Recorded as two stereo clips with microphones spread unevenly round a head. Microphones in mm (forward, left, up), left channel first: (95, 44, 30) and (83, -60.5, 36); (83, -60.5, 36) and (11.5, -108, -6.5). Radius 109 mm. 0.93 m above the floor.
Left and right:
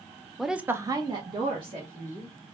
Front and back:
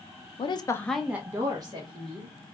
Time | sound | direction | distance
0.4 | a woman speaking | straight ahead | 0.6 m